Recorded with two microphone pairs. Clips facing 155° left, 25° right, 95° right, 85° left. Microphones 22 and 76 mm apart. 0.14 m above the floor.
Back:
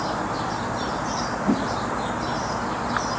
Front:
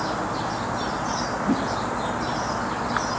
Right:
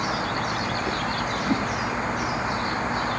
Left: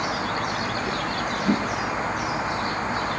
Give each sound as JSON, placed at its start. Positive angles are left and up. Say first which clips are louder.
{"t": 1.5, "sound": "a whoosh", "louder": "back 1 dB, left 2 dB", "azimuth_deg": 120, "distance_m": 7.0}